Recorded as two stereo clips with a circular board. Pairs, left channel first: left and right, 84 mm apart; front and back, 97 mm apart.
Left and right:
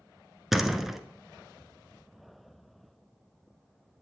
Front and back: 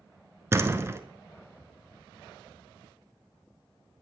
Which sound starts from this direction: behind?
A door slam, at 0.5 s.